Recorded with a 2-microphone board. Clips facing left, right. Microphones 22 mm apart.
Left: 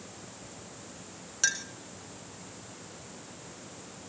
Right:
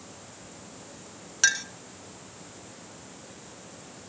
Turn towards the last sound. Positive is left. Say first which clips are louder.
# right 6 dB
turn(degrees=-25)  # may be behind; listen again after turning